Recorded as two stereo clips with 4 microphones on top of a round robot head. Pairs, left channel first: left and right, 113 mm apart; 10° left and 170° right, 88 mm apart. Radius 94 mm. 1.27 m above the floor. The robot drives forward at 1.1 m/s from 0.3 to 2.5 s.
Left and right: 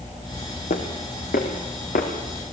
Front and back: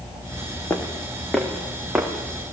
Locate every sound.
0.7 s footsteps: 80° left, 3.5 m; by 2.1 s 115° left, 5 m